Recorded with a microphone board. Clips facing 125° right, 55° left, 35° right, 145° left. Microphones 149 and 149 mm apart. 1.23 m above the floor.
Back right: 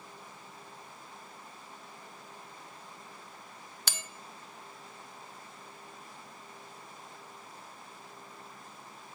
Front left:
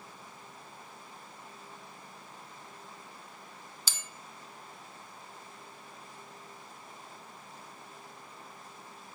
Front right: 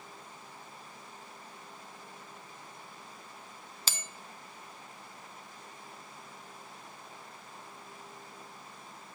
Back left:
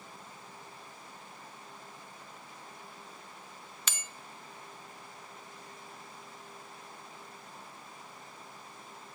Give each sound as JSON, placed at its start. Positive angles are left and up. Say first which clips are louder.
{"t": 3.9, "sound": "a bell", "louder": "back right 6 dB, front right 2 dB", "azimuth_deg": -95, "distance_m": 0.5}